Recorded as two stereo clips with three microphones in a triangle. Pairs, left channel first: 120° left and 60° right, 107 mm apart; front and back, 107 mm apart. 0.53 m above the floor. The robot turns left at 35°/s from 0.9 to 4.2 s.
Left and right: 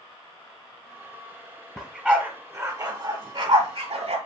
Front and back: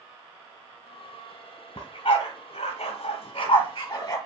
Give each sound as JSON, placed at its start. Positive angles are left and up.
{"t": 1.8, "sound": "a dog barking", "azimuth_deg": 30, "distance_m": 1.2}